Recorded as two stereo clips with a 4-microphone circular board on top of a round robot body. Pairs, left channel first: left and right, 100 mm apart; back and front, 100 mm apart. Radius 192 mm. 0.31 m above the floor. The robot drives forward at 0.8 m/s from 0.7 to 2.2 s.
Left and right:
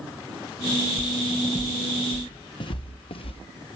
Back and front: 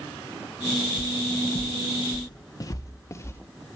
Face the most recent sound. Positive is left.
turn(degrees=115)